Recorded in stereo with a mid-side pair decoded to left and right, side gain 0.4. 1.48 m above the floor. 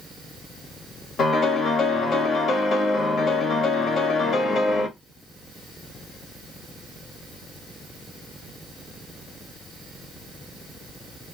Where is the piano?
70° left, 1.4 m.